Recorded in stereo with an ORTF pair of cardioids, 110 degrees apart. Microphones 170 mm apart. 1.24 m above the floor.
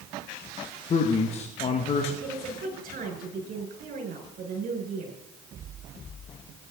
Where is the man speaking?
40° left, 1.6 m.